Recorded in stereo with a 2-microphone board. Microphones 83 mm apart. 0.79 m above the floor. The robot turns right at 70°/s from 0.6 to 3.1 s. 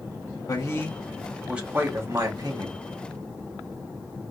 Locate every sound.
0.5 s a man speaking: 130° left, 1.6 m; by 2.8 s 75° right, 1.6 m